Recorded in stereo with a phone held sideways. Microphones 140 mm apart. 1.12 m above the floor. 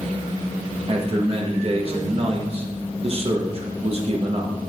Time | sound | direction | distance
0.9 | a man speaking | 45° right (ahead or behind) | 1.4 m